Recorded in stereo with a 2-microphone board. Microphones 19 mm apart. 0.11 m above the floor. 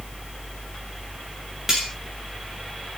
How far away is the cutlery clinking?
About 6 m.